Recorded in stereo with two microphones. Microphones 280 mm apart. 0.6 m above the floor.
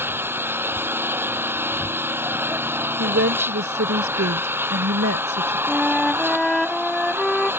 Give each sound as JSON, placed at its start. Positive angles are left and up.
{"t": 0.0, "sound": "an engine running", "side_deg": -10}
{"t": 3.0, "sound": "a woman speaking", "side_deg": -50}
{"t": 5.7, "sound": "a flute", "side_deg": 0}